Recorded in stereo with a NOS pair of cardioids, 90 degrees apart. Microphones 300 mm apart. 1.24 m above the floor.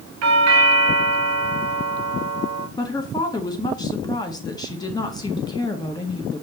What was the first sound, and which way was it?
A doorbell, 65° right.